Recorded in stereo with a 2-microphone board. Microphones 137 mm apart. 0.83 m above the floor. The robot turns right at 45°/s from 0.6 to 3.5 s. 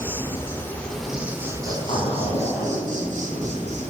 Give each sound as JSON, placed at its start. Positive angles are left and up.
{"t": 0.0, "sound": "an insect", "azimuth_deg": 160, "distance_m": 0.9}
{"t": 1.5, "sound": "a zipper", "azimuth_deg": 90, "distance_m": 2.5}